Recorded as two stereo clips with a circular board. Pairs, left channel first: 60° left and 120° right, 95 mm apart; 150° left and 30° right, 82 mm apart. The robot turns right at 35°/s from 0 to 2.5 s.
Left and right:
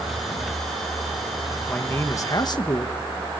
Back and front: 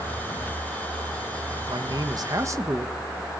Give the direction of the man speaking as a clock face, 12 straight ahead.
12 o'clock.